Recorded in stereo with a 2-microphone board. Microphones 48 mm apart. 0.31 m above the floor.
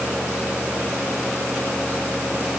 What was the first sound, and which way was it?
Only background noise.